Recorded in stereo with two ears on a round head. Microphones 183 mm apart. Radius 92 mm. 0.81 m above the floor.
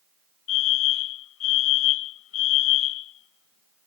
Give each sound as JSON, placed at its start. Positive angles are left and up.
{"t": 0.5, "sound": "a fire alarm", "side_deg": 75}